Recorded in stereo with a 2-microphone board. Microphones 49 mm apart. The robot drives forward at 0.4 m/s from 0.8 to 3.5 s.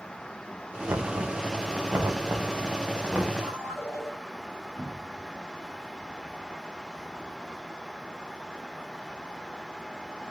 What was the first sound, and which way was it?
Knocking, 70° right (ahead or behind).